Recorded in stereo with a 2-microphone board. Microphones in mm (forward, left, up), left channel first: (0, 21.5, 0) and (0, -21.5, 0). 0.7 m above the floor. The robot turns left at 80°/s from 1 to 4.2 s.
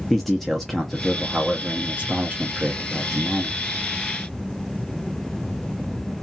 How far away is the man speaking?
About 0.6 m.